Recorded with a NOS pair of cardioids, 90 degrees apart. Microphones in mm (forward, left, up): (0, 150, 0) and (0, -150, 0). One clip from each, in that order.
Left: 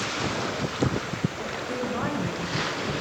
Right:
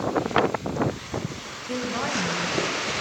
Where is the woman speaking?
5° right, 5 m.